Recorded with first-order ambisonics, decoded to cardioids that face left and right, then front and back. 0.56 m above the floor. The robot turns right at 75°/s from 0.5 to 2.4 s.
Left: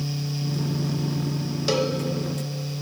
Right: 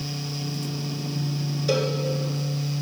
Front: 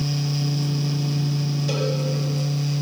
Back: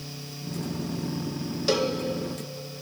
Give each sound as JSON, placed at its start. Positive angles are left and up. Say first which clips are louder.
{"t": 1.7, "sound": "a cowbell", "louder": "left 1 dB, back 2 dB", "azimuth_deg": 125, "distance_m": 0.9}